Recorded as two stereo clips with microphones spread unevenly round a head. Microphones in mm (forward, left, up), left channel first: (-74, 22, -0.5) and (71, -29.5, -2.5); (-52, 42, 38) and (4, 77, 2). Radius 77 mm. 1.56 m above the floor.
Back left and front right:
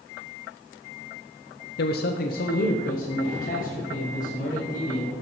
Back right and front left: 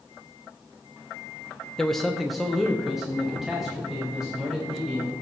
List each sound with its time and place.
1.8 s a man speaking: 135° left, 0.5 m; by 5.1 s 115° left, 2.5 m